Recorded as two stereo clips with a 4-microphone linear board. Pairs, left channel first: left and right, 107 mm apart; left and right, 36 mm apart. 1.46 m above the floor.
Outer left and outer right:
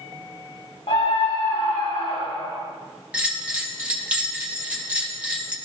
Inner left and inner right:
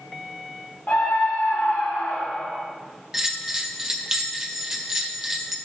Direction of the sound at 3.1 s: 15° right (ahead or behind).